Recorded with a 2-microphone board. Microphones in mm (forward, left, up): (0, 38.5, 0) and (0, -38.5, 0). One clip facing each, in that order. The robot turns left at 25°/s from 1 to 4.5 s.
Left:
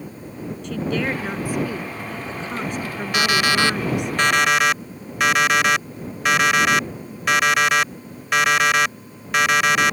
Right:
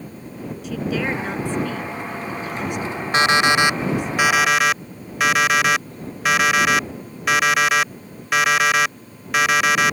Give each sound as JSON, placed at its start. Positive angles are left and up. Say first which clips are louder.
{"t": 0.6, "sound": "a woman speaking", "louder": "even", "azimuth_deg": -175}
{"t": 3.1, "sound": "an alarm clock", "louder": "right 3 dB", "azimuth_deg": -145}